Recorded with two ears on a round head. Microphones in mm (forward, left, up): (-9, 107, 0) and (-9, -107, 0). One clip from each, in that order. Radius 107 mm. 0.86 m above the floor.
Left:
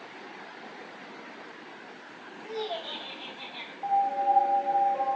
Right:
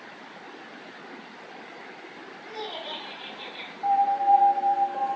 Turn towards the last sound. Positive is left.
turn(degrees=5)  # may be behind; listen again after turning